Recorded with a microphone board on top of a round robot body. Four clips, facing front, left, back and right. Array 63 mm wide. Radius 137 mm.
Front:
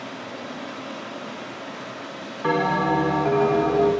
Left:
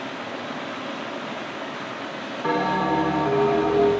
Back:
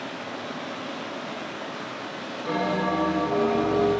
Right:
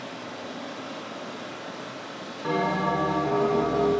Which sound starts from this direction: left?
Running water, at 0.0 s.